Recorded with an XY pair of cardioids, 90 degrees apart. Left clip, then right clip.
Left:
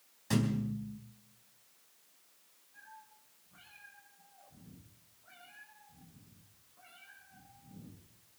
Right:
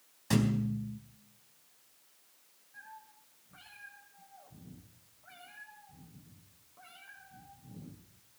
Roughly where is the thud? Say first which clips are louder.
Right 2 dB; ahead.